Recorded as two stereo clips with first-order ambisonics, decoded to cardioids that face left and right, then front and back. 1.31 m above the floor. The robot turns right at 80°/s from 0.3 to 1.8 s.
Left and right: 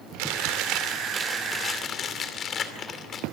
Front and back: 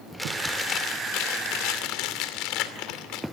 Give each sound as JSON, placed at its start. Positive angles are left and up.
{"t": 0.2, "sound": "chewing", "azimuth_deg": -95, "distance_m": 2.5}